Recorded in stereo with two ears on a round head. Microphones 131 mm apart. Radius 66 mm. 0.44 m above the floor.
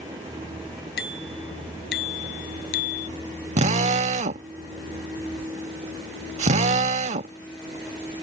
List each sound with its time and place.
1.0 s a bicycle bell: 80° left; by 3.1 s 65° left (ahead or behind)
3.6 s a drill: 45° right (ahead or behind)